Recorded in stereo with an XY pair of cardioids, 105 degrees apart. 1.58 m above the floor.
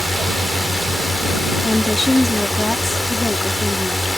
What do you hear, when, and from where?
0.0 s a drone: 15° left
1.6 s a woman speaking: 15° left